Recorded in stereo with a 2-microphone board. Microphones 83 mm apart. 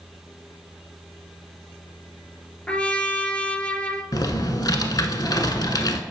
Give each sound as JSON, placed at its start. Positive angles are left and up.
{"t": 2.7, "sound": "a trumpet", "side_deg": 15, "distance_m": 0.7}
{"t": 4.1, "sound": "typing on a keyboard", "side_deg": 55, "distance_m": 0.9}